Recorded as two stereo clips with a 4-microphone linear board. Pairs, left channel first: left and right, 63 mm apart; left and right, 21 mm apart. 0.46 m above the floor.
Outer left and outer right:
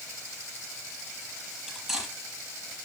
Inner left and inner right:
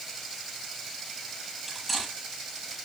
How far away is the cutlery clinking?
About 6 m.